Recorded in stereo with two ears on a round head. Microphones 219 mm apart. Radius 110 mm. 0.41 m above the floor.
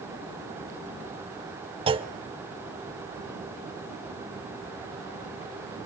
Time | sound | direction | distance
1.9 | a clunk | 20° right (ahead or behind) | 0.6 m